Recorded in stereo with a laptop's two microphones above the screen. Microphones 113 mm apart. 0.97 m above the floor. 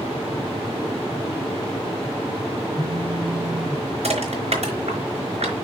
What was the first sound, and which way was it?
A phone buzzing, 75° right (ahead or behind).